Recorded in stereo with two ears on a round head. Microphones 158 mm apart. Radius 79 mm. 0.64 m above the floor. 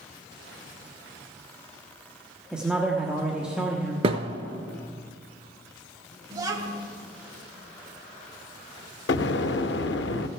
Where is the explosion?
70° left (ahead or behind), 0.6 m.